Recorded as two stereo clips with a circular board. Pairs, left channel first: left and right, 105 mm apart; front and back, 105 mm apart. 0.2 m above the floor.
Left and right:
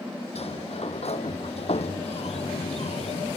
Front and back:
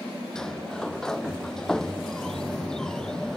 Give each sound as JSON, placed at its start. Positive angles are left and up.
{"t": 0.3, "sound": "a sliding door", "azimuth_deg": 85}